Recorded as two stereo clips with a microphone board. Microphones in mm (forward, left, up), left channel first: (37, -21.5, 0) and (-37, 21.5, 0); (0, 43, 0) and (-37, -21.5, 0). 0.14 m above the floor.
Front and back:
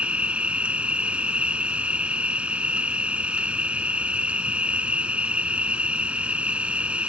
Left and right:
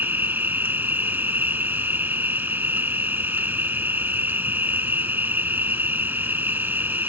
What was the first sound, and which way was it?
An insect, 150° right.